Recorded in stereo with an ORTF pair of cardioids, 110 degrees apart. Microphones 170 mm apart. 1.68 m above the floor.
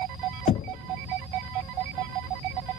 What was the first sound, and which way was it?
Knocking, 45° left.